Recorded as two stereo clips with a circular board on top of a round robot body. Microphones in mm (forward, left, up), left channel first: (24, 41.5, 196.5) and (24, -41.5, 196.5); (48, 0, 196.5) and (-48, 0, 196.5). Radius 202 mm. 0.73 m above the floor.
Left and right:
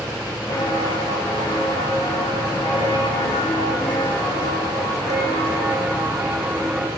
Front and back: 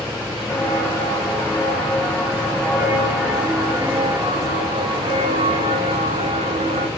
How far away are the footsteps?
About 7.5 m.